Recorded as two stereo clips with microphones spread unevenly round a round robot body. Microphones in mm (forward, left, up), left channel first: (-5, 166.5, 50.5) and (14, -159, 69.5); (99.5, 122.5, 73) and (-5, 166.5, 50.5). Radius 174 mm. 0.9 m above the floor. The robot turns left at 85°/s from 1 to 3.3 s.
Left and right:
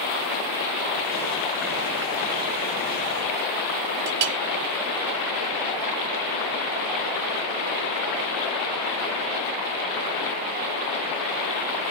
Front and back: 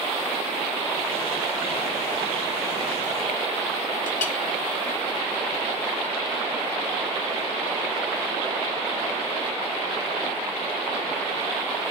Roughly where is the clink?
Ahead right.